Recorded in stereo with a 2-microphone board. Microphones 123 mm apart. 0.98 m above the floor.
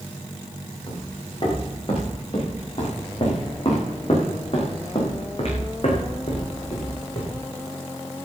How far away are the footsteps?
About 7 m.